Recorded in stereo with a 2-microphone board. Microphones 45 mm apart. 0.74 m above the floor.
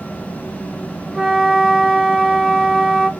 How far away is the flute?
About 0.9 m.